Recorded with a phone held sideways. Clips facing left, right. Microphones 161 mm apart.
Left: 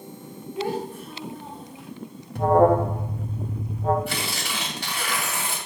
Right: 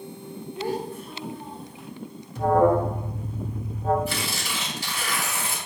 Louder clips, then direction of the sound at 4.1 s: Even; 65° left (ahead or behind).